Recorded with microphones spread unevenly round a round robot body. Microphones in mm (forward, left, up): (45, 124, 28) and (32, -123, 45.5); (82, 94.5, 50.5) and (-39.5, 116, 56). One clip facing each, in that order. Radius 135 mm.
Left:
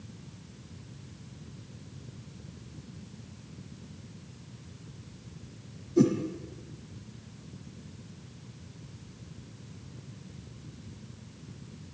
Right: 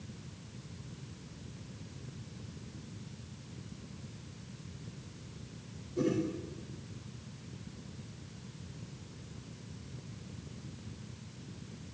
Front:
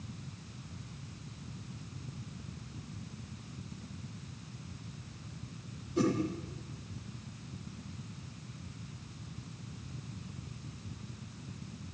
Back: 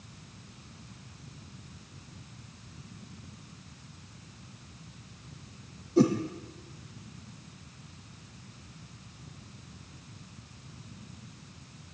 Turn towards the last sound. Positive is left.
turn(degrees=115)